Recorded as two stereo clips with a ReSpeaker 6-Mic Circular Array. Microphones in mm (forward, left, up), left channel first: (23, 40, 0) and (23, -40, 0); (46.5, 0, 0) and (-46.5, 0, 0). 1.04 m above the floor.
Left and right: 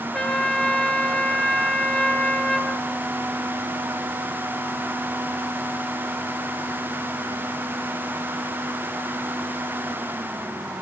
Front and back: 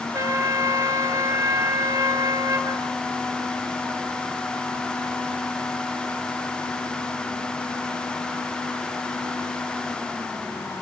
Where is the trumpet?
165° left, 1.0 m.